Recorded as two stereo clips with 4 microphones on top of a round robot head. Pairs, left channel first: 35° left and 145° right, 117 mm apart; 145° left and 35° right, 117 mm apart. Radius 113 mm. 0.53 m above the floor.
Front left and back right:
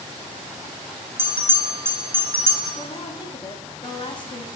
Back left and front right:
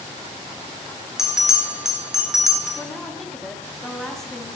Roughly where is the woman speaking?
Ahead left.